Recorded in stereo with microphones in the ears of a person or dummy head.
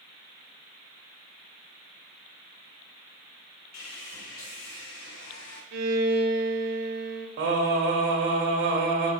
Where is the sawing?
75° left (ahead or behind), 1.7 m.